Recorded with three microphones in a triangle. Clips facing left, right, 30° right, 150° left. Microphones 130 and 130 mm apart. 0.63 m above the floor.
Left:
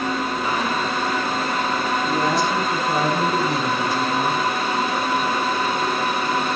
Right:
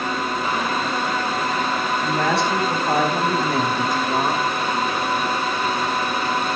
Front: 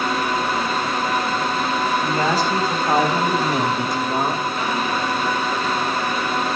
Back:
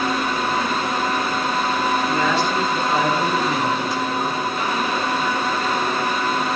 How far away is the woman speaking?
About 5 m.